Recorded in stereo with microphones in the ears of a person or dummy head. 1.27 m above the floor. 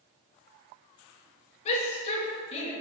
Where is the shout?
35° left (ahead or behind), 1.7 m.